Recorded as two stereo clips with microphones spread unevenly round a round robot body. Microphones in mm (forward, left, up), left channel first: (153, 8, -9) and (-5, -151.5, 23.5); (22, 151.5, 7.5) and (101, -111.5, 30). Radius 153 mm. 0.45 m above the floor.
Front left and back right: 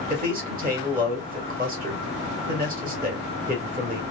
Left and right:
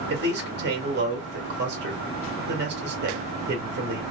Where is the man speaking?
100° right, 1.3 m.